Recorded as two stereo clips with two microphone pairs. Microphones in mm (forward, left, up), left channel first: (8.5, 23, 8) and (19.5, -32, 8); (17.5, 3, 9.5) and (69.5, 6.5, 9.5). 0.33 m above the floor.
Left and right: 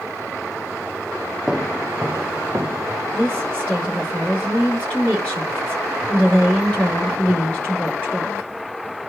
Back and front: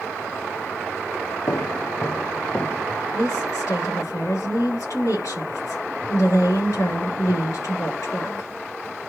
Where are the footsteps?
165° right, 1.0 m; by 2.9 s 120° right, 2.5 m.